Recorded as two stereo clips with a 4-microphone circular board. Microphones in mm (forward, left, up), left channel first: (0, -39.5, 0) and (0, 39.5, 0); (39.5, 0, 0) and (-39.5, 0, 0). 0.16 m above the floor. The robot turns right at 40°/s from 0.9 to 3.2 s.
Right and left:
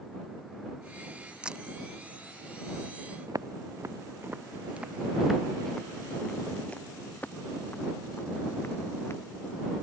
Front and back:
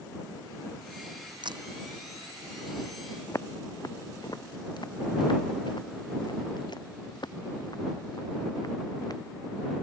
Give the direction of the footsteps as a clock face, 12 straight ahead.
10 o'clock.